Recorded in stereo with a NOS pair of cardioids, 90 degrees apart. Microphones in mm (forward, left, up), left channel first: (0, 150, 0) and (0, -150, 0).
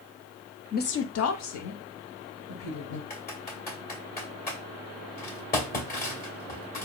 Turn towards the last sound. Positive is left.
turn(degrees=30)